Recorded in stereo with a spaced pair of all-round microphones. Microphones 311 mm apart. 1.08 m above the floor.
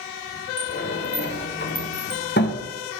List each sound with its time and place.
0.6 s a sliding door: 35° left (ahead or behind), 0.6 m